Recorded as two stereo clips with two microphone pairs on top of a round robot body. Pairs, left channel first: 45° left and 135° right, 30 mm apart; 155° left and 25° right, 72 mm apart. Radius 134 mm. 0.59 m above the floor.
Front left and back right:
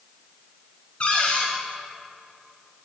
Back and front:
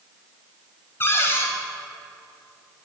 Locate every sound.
1.0 s a cupboard door: 95° left, 1.4 m